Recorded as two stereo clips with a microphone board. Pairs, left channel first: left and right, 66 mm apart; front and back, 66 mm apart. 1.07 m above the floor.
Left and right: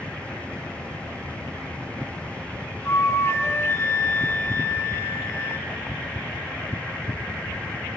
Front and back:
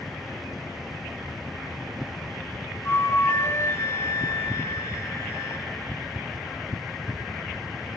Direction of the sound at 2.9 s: 40° left.